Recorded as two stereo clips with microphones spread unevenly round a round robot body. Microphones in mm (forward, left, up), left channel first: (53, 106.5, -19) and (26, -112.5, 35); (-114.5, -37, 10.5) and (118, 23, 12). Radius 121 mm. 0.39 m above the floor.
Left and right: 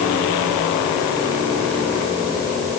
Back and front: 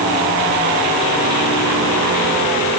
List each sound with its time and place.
Only background noise.